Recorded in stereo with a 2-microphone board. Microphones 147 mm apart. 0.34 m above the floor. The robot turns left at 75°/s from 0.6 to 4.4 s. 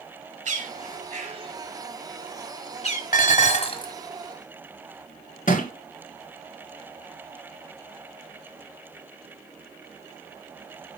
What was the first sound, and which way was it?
A bird, 50° right (ahead or behind).